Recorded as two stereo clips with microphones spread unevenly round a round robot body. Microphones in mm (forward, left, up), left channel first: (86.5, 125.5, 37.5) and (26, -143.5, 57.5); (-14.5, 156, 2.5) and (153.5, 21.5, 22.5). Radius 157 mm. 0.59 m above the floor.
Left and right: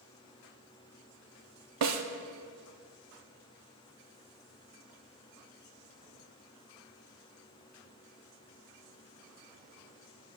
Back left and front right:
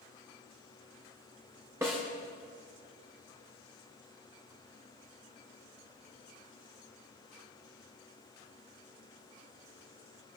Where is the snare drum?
120° right, 0.8 m.